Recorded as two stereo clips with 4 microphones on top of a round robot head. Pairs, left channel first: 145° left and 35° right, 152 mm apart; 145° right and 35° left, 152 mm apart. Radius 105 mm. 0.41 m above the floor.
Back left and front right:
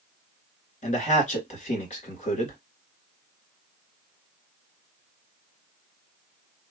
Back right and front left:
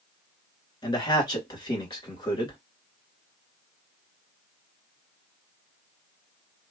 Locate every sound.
0.8 s a man speaking: 165° left, 2.5 m